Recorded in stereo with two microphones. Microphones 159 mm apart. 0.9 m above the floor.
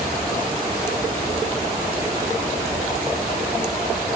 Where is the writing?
No writing in this recording.